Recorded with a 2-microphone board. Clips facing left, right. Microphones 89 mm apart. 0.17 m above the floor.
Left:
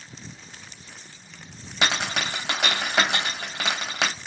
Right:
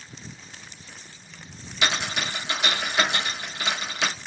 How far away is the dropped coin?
About 1.2 m.